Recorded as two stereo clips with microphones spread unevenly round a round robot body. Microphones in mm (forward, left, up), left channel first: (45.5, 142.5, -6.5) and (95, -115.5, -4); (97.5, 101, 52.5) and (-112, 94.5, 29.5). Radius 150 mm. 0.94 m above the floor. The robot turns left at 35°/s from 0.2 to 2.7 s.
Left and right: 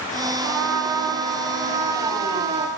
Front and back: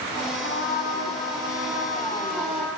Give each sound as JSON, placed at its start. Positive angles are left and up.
{"t": 0.4, "sound": "a trumpet", "azimuth_deg": -60, "distance_m": 4.5}